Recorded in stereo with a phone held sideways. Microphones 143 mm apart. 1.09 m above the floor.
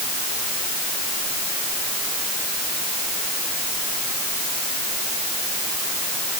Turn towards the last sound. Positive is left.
No sound to turn to.